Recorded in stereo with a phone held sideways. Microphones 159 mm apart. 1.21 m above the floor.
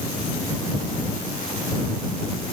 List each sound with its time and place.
Only background noise.